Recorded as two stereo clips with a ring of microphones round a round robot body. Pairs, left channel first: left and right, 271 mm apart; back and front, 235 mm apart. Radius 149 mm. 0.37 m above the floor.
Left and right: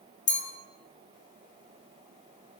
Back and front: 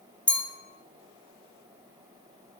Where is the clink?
100° left, 0.5 m.